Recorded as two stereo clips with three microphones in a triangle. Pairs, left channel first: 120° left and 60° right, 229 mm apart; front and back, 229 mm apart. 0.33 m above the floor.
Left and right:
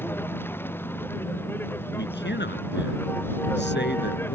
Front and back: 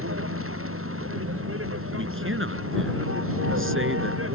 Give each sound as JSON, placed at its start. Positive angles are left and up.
{"t": 0.0, "sound": "a vehicle", "azimuth_deg": -160}
{"t": 2.0, "sound": "a man speaking", "azimuth_deg": 160}